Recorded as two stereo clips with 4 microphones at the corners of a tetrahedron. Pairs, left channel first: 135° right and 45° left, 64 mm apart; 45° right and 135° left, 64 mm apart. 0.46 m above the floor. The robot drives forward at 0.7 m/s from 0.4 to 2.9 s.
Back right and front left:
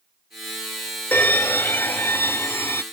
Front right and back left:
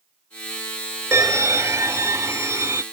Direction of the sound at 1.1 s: 165° left.